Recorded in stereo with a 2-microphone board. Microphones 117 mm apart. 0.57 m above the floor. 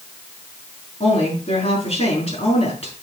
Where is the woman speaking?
65° left (ahead or behind), 5.5 m.